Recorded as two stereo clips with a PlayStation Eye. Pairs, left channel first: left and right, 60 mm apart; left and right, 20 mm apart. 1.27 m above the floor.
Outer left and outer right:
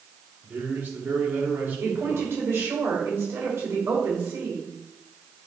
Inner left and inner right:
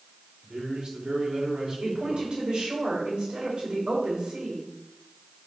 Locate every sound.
0.4 s a man speaking: 35° right (ahead or behind), 3.5 m
1.8 s a woman speaking: 50° right (ahead or behind), 3.5 m